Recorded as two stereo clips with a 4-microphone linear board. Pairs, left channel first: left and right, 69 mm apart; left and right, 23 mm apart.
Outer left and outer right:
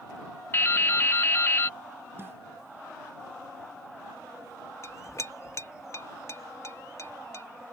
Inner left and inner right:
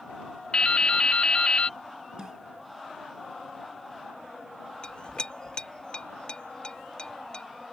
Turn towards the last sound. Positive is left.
turn(degrees=45)  # may be behind; listen again after turning